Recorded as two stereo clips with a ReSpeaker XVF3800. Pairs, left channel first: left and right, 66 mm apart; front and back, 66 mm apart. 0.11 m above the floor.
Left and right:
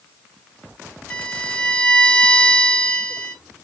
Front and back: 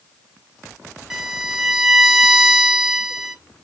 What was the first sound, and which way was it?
A violin, 110° left.